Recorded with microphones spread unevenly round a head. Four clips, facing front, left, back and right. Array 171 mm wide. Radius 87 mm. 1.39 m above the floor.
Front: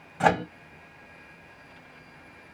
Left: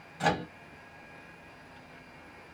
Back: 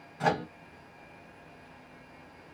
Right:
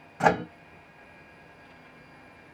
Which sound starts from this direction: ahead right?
A microwave, at 0.2 s.